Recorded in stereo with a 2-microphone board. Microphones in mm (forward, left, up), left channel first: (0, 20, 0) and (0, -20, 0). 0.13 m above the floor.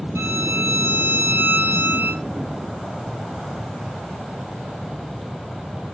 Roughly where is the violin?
Right.